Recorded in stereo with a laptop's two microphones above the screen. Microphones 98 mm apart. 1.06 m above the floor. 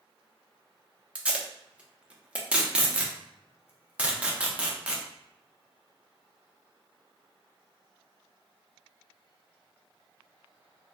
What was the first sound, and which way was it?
Tape being pulled, 10° right (ahead or behind).